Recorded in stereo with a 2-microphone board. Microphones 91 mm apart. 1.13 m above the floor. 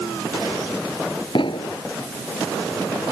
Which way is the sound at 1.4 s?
65° left (ahead or behind).